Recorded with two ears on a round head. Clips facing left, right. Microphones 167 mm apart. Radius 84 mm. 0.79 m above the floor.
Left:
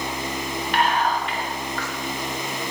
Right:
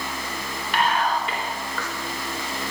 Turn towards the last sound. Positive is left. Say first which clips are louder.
# left 1 dB
turn(degrees=-75)  # may be behind; listen again after turning